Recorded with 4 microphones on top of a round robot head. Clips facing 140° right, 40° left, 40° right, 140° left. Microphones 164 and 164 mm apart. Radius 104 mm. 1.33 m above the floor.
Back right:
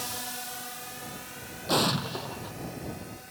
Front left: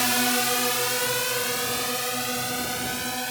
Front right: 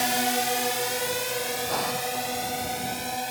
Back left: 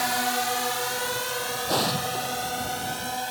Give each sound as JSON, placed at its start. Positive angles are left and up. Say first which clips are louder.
{"t": 0.0, "sound": "a drone", "louder": "front left 14 dB, front right 1 dB", "azimuth_deg": 25}
{"t": 1.7, "sound": "an explosion", "louder": "back right 2 dB, back left 5 dB", "azimuth_deg": -160}